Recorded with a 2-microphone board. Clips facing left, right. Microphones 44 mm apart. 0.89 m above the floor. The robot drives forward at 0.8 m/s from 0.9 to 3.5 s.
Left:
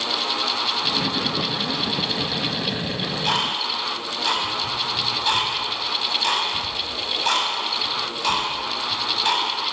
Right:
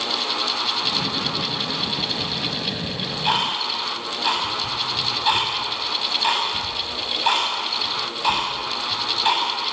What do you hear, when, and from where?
2.8 s ticking: 15° right (ahead or behind), 7 m